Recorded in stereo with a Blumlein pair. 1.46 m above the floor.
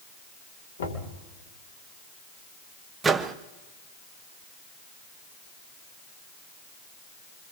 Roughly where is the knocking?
Ahead left.